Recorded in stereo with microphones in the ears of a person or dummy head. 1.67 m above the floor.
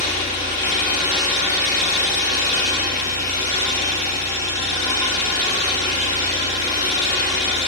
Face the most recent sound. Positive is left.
turn(degrees=40)  # may be behind; listen again after turning